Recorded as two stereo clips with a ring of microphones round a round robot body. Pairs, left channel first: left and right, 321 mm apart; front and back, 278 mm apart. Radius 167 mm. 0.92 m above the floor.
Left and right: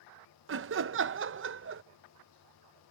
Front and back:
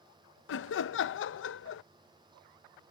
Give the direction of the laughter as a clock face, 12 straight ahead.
1 o'clock.